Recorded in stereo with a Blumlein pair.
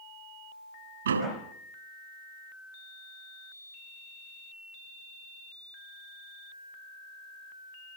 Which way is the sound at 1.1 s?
65° right.